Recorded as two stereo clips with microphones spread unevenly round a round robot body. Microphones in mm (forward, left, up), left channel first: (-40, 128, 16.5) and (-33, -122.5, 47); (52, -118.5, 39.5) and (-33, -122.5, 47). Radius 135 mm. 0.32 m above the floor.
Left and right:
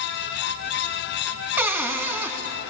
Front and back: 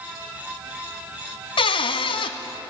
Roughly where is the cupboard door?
Ahead.